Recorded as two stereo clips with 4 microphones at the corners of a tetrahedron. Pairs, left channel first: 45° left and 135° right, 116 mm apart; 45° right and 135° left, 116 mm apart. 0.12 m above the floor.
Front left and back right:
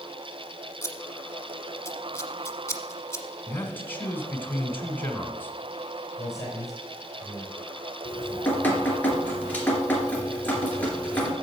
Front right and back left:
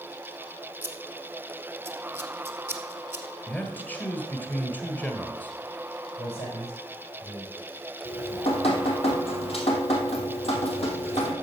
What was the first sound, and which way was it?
Scissors, 85° left.